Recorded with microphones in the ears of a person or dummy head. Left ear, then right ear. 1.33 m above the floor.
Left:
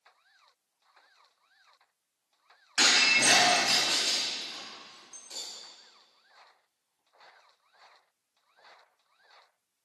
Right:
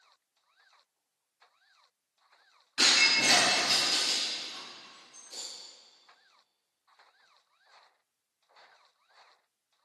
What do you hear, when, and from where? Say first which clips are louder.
2.8 s breaking glass: left 1 dB; 40° left (ahead or behind), 3.5 m